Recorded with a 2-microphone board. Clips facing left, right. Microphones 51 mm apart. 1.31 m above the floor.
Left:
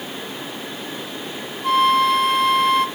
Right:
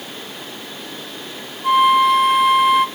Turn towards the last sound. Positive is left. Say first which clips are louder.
# right 3 dB
turn(degrees=-5)  # may be behind; listen again after turning